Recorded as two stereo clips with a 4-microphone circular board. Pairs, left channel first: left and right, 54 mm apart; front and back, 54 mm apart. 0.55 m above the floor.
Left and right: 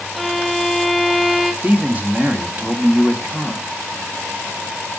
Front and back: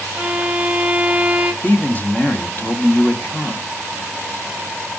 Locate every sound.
0.1 s a violin: 175° right, 0.8 m
1.6 s a man speaking: 45° right, 1.4 m